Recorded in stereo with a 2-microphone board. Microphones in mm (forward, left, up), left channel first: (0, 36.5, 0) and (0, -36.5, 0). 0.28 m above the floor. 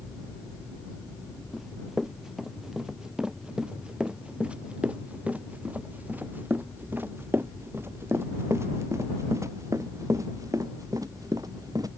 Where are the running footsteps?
Centre (ahead or behind); by 11.9 s 55° right (ahead or behind).